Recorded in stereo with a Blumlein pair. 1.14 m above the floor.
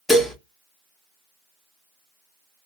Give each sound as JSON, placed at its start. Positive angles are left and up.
{"t": 0.1, "sound": "dishes clattering", "azimuth_deg": 0, "distance_m": 0.8}